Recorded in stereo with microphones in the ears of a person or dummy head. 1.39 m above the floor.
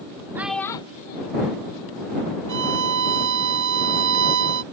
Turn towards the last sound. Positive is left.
turn(degrees=-60)  # may be behind; listen again after turning